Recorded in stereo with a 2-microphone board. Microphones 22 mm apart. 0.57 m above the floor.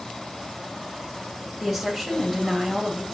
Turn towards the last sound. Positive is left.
turn(degrees=0)  # may be behind; listen again after turning